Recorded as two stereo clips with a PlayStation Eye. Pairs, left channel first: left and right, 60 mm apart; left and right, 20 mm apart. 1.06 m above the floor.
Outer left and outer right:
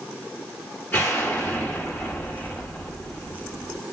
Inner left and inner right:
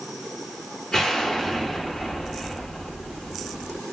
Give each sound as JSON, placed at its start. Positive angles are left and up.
{"t": 0.9, "sound": "an explosion", "side_deg": 35, "distance_m": 1.8}